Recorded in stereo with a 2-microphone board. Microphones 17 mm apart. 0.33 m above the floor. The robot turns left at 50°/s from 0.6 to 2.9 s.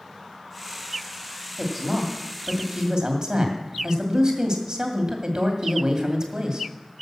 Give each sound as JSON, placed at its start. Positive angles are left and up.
{"t": 1.6, "sound": "a woman speaking", "azimuth_deg": 5, "distance_m": 2.0}